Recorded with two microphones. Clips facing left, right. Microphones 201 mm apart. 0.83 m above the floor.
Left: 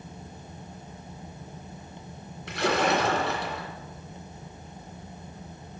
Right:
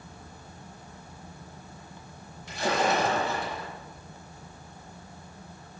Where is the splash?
75° left (ahead or behind), 2 m.